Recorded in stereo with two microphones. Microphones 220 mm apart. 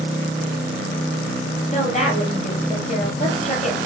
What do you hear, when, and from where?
1.7 s a woman speaking: 35° left (ahead or behind), 3 m